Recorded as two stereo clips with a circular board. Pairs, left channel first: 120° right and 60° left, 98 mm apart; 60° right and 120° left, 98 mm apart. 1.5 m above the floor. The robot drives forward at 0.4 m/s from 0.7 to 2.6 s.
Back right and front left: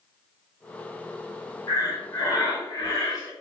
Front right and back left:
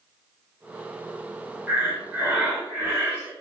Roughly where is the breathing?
Behind.